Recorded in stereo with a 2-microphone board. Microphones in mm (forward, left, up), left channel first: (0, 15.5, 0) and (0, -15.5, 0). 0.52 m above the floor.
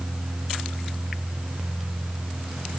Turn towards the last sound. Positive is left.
No sound to turn to.